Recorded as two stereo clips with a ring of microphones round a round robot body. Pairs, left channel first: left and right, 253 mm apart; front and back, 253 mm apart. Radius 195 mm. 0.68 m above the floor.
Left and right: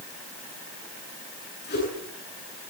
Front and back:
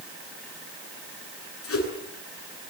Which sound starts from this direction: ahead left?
A whoosh, at 1.6 s.